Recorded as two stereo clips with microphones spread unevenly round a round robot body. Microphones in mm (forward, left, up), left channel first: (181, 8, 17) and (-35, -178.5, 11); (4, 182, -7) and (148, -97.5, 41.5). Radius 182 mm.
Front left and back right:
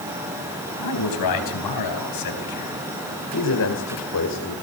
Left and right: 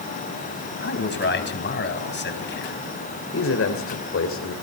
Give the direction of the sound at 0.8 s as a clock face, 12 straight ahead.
10 o'clock.